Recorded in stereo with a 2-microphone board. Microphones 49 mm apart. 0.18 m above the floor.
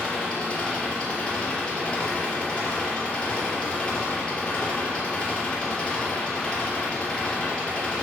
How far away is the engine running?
About 3 m.